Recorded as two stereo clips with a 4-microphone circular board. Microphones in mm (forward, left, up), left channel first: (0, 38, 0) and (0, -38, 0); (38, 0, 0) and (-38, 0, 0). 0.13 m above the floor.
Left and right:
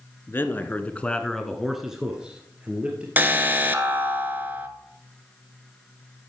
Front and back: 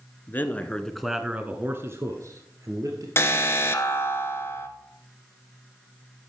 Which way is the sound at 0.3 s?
45° left.